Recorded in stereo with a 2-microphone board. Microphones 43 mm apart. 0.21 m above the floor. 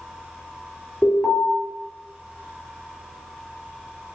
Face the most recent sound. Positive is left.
turn(degrees=15)  # may be behind; listen again after turning